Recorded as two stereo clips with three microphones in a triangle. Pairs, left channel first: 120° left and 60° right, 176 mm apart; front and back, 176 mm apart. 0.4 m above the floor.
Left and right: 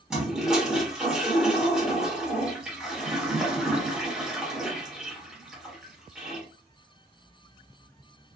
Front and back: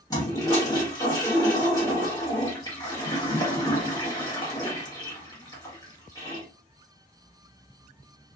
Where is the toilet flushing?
20° left, 1.3 m.